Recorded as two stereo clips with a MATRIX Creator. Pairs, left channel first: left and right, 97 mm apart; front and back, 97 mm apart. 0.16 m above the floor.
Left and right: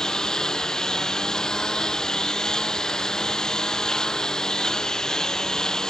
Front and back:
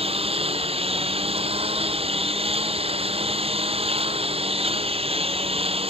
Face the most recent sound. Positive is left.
turn(degrees=175)